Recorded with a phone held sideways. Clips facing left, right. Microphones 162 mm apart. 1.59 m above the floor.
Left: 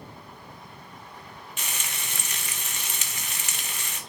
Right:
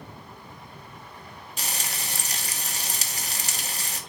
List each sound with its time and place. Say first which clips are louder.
1.6 s frying: right 3 dB; 35° right (ahead or behind), 1.4 m